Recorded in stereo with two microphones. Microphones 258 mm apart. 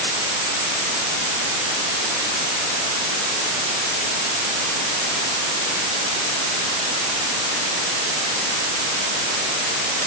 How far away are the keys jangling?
I don't hear keys jangling.